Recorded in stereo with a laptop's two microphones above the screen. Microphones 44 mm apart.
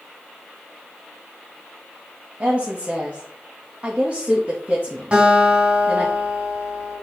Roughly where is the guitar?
Right.